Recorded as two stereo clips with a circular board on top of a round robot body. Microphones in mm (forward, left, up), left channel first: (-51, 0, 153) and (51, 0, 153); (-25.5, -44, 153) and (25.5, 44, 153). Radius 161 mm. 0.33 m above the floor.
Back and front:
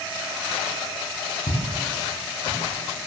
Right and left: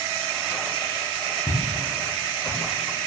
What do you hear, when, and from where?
1.5 s footsteps: 175° right, 9 m; by 2.6 s 170° right, 10 m